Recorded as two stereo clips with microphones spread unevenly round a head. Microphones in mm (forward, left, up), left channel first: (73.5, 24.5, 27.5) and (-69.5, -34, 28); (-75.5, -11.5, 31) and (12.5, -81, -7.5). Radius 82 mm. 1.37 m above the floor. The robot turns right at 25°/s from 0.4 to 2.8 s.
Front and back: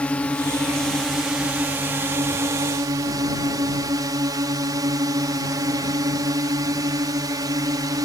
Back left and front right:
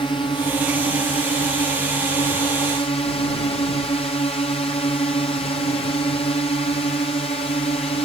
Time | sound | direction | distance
0.0 | a drone | 95° left | ?